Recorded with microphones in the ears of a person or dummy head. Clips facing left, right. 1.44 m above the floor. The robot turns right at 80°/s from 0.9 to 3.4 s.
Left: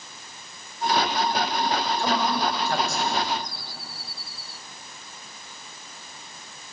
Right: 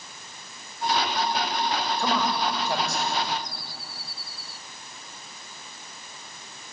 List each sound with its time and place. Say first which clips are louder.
2.0 s a man speaking: even; 75° right (ahead or behind), 6.5 m; by 3.1 s 20° left (ahead or behind), 6.5 m